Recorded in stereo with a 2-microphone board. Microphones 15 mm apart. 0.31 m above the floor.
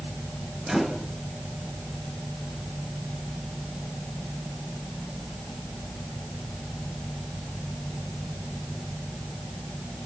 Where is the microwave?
35° right (ahead or behind), 4.5 m.